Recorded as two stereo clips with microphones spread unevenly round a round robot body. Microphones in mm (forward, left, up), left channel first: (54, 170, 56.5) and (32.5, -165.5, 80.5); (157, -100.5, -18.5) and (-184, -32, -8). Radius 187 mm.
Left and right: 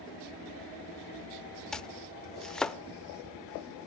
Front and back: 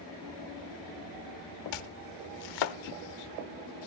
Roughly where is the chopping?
Ahead.